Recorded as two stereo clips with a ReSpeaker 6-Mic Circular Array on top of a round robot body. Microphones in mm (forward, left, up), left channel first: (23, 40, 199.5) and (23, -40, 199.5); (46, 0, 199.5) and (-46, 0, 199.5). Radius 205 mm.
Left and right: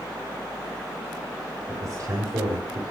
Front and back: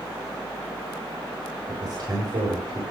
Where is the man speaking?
140° right, 3.5 m.